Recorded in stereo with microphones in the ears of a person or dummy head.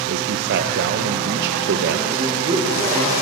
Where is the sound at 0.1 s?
60° right (ahead or behind), 0.7 m.